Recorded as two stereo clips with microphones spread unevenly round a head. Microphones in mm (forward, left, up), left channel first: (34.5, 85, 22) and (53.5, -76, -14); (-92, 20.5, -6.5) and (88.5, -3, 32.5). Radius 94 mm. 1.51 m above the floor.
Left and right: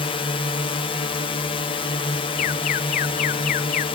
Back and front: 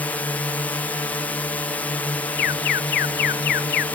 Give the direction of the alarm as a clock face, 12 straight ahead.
7 o'clock.